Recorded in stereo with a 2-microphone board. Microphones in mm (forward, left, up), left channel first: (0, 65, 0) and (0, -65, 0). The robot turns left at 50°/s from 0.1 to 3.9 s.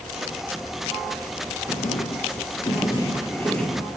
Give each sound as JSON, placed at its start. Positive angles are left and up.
{"t": 1.7, "sound": "writing", "azimuth_deg": 100, "distance_m": 1.5}